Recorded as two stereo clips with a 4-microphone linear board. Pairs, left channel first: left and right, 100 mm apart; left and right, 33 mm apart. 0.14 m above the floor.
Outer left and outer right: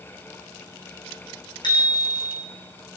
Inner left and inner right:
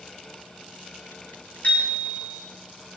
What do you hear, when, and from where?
1.6 s a bicycle bell: 50° left (ahead or behind), 7.5 m